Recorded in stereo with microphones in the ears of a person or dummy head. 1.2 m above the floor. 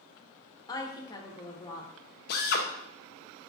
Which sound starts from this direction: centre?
A woman speaking, at 0.7 s.